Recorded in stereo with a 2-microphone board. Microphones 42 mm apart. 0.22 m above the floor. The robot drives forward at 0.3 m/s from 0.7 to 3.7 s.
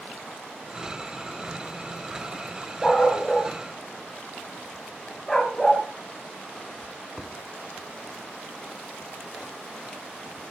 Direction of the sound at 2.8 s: 5° left (ahead or behind).